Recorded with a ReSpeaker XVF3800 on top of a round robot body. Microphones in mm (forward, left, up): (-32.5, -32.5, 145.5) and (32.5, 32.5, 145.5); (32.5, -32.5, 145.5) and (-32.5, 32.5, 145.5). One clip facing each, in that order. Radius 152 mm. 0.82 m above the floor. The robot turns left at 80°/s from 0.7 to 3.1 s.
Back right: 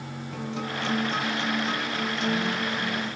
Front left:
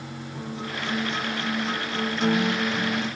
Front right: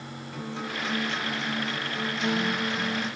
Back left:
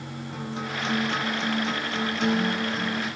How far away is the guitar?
About 1.2 m.